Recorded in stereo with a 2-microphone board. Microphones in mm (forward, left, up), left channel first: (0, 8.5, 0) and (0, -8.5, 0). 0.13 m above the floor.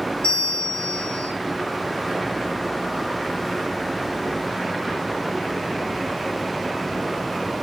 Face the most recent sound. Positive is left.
turn(degrees=60)  # may be behind; listen again after turning